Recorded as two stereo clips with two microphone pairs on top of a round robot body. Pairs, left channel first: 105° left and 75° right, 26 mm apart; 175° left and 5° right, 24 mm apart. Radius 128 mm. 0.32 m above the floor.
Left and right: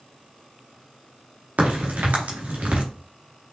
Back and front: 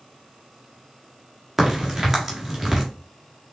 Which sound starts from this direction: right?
A crack, at 1.6 s.